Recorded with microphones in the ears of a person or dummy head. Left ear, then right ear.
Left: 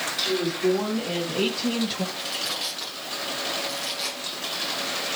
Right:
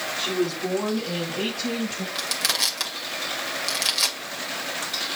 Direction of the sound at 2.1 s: 60° right (ahead or behind).